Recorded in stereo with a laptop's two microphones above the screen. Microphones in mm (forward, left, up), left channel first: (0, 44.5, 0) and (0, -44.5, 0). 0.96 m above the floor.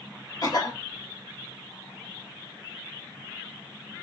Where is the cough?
45° left (ahead or behind), 0.9 m.